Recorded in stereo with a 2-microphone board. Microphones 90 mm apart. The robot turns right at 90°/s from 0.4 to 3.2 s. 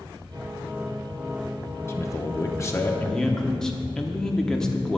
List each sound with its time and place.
1.9 s a man speaking: 50° left, 0.8 m; by 5.0 s 170° left, 0.8 m